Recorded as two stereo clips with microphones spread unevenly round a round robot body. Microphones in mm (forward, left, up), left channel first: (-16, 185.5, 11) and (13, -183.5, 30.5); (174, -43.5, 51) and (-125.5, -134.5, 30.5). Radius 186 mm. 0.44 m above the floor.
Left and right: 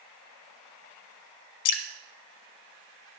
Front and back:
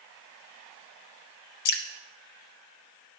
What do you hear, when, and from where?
1.6 s dripping: 55° left, 0.8 m